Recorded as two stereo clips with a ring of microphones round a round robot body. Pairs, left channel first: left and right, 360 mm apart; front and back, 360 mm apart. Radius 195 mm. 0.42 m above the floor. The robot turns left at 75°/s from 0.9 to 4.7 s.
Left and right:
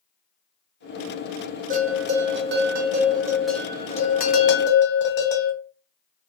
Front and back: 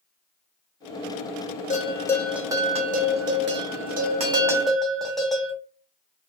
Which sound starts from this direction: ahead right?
A bell, at 1.7 s.